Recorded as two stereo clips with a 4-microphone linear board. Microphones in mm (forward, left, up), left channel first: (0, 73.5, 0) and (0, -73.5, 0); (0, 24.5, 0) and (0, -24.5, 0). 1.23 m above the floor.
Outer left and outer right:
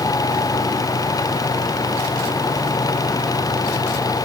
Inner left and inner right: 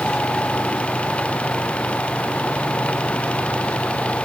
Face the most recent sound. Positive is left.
No sound to turn to.